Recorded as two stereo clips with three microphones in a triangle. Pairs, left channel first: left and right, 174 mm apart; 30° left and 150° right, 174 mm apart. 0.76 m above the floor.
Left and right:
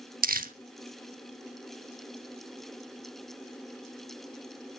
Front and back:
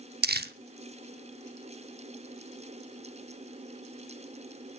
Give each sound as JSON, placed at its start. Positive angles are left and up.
{"t": 0.2, "sound": "crumpling", "azimuth_deg": -125, "distance_m": 0.8}